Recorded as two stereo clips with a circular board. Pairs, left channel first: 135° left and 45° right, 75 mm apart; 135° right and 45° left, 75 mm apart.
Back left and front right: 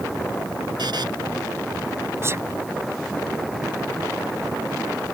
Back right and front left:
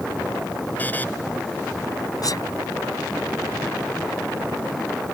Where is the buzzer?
65° right.